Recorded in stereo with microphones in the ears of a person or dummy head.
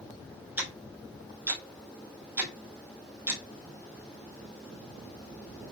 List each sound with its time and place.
0.6 s ticking: 10° right (ahead or behind), 0.8 m